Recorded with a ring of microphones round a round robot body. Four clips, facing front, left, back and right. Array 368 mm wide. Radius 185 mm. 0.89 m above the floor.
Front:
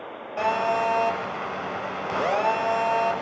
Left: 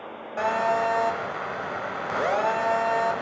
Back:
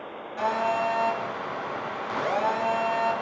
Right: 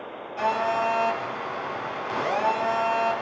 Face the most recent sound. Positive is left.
turn(degrees=45)